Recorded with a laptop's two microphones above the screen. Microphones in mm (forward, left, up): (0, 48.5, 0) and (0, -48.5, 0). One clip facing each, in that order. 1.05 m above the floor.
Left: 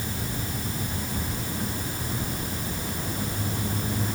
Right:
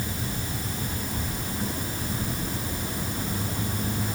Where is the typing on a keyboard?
I don't hear typing on a keyboard.